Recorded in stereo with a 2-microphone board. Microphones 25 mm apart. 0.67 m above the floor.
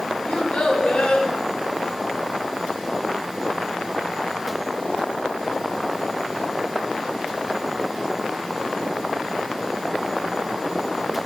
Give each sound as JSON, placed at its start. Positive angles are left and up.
{"t": 0.3, "sound": "a child speaking", "side_deg": 60, "distance_m": 1.5}